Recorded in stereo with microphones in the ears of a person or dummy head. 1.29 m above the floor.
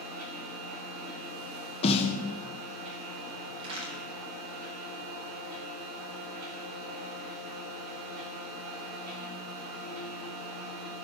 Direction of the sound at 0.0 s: 50° right (ahead or behind).